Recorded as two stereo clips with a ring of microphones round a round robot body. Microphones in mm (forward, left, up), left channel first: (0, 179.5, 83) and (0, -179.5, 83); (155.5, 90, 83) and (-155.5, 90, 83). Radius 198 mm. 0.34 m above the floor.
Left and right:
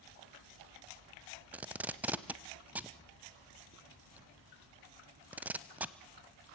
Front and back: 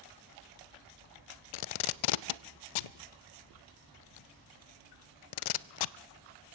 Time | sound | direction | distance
1.5 | tape being pulled | 5° right | 0.5 m